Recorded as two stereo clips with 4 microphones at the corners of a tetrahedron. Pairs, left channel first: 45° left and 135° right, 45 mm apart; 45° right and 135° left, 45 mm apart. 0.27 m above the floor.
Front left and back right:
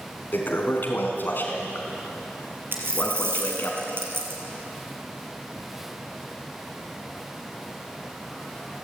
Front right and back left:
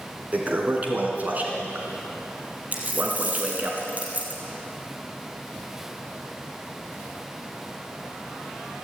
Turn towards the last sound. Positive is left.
turn(degrees=-170)